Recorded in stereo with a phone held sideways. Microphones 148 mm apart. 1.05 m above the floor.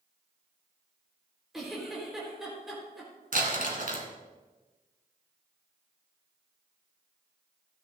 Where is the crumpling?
65° right (ahead or behind), 1.9 m.